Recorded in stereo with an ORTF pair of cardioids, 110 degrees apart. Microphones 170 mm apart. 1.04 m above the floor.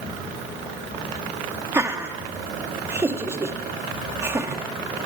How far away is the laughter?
About 1.7 m.